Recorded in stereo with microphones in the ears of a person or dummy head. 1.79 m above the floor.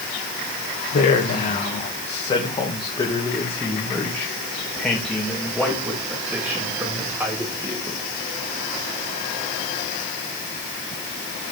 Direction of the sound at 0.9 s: 45° left (ahead or behind).